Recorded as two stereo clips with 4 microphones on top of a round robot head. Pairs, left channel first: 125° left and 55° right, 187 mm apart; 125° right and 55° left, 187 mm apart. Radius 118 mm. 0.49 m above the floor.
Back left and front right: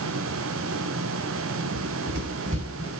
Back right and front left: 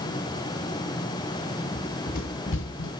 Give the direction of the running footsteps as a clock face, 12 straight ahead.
2 o'clock.